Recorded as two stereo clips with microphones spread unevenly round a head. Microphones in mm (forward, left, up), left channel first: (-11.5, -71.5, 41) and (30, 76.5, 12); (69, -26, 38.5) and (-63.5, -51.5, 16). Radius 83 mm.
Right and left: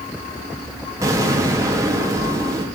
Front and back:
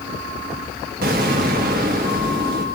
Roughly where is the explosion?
Behind left.